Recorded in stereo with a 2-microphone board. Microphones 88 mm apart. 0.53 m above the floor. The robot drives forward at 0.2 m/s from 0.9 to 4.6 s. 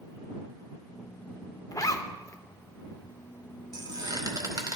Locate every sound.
1.7 s a zipper: 45° left (ahead or behind), 0.5 m; by 2.4 s 35° left (ahead or behind), 0.6 m
3.7 s a squeak: 50° right (ahead or behind), 0.9 m; by 4.8 s 45° right (ahead or behind), 1.1 m